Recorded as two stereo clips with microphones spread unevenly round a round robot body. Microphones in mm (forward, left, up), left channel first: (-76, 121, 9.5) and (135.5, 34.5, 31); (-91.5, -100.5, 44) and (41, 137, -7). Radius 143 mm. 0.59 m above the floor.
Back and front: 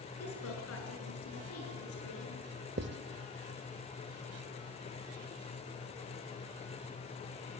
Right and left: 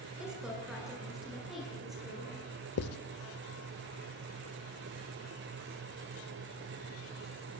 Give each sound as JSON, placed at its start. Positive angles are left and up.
{"t": 0.2, "sound": "a woman speaking", "azimuth_deg": 150, "distance_m": 9.0}
{"t": 2.8, "sound": "writing", "azimuth_deg": -75, "distance_m": 0.9}